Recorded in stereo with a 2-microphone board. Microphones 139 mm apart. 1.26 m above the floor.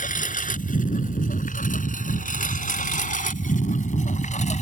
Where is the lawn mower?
75° left (ahead or behind); by 4.6 s 60° left (ahead or behind).